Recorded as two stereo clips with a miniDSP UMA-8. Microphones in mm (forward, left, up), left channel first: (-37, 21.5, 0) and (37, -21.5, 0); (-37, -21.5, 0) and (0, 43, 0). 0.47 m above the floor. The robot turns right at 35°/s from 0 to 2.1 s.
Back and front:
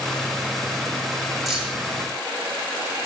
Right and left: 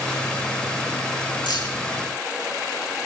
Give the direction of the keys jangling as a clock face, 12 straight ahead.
4 o'clock.